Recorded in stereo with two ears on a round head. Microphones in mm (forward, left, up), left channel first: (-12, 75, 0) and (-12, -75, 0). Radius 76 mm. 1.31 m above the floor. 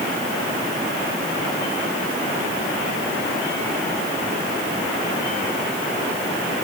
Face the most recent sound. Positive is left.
No sound to turn to.